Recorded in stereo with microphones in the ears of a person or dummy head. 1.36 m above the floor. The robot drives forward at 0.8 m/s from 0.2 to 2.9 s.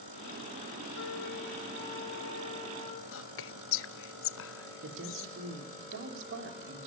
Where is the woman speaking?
60° right (ahead or behind), 3.5 m.